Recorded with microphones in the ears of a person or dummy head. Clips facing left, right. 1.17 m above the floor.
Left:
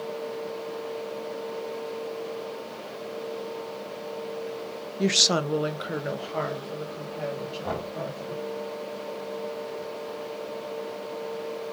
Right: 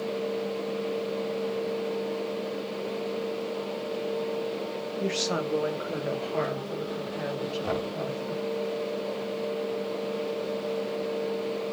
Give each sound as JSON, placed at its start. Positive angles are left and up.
{"t": 5.0, "sound": "a woman speaking", "side_deg": 75, "distance_m": 0.6}
{"t": 7.6, "sound": "knocking", "side_deg": -35, "distance_m": 1.7}